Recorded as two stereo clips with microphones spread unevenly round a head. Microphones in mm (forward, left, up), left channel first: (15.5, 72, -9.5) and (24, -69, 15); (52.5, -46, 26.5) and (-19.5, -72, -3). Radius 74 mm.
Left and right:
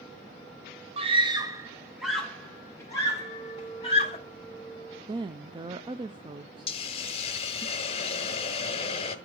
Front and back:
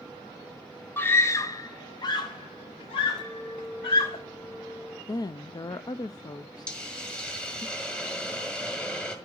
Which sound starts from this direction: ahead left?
A hiss, at 6.7 s.